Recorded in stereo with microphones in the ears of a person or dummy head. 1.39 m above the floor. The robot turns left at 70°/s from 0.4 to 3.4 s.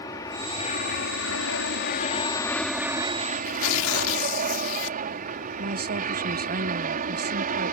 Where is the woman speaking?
45° right (ahead or behind).